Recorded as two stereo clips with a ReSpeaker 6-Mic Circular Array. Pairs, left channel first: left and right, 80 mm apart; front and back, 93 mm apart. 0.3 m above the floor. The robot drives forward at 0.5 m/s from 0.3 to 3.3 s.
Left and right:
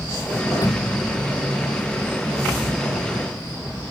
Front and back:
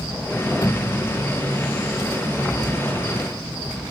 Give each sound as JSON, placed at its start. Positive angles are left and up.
{"t": 0.6, "sound": "a thud", "azimuth_deg": 55}